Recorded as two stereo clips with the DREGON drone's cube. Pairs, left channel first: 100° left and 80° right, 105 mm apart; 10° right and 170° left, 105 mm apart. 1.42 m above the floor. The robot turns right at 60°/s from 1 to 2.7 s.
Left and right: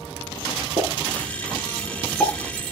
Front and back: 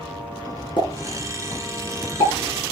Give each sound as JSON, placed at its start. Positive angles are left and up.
{"t": 0.8, "sound": "a pop", "azimuth_deg": -55, "distance_m": 5.5}